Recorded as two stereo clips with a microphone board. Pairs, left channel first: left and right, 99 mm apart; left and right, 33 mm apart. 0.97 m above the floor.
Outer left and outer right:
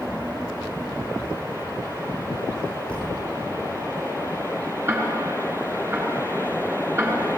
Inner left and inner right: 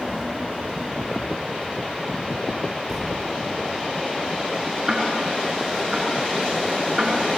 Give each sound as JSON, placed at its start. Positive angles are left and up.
{"t": 2.9, "sound": "a thud", "side_deg": 10, "distance_m": 4.5}
{"t": 4.9, "sound": "ticking", "side_deg": -25, "distance_m": 5.0}